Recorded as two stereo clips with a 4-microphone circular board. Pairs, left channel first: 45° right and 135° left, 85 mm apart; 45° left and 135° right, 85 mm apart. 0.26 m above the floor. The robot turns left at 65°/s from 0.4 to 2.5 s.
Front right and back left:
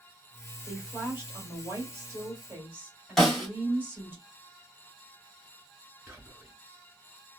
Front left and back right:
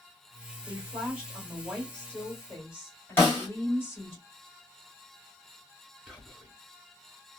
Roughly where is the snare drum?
Ahead left.